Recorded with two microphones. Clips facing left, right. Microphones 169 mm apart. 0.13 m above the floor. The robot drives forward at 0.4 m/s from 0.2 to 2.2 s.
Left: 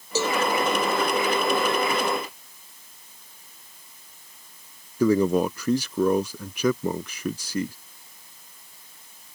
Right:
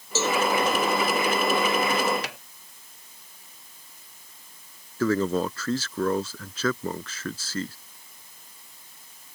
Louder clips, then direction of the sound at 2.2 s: Right 6 dB; 85° right.